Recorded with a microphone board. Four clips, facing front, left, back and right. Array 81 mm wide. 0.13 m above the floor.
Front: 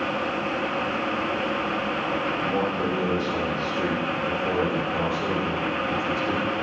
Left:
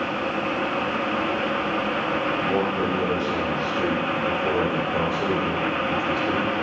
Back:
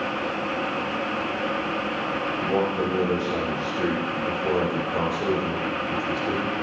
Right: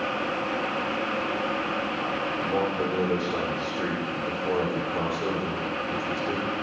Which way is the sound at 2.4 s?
160° left.